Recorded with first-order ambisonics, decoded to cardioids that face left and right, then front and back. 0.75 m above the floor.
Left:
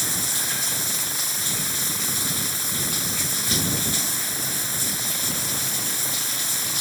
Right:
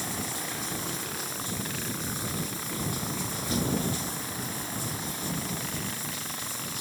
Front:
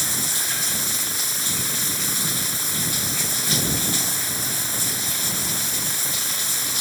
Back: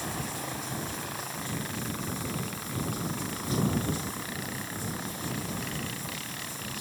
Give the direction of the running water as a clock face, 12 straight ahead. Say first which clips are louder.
Left 8 dB, front 10 dB; 11 o'clock.